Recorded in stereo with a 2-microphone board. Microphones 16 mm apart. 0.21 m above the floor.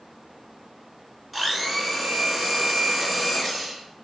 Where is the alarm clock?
I don't hear an alarm clock.